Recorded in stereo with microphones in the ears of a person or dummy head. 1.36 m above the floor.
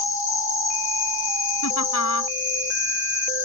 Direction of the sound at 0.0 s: 35° left (ahead or behind).